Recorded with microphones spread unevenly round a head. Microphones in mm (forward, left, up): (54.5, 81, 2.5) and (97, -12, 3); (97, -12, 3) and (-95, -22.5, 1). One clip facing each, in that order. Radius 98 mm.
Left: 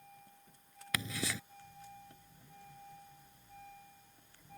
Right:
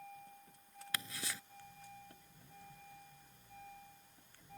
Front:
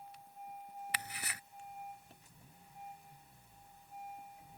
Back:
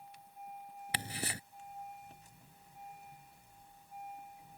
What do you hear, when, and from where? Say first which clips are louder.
0.9 s ticking: left 7 dB, back 5 dB; 120° left